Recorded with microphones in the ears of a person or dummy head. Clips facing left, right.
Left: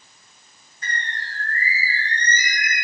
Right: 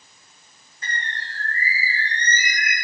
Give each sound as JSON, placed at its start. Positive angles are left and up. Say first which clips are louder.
{"t": 0.8, "sound": "a bird", "louder": "left 1 dB", "side_deg": -60, "distance_m": 3.5}